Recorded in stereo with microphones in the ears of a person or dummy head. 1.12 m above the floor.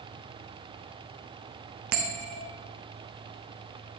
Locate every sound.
1.9 s a bell: 45° right (ahead or behind), 0.7 m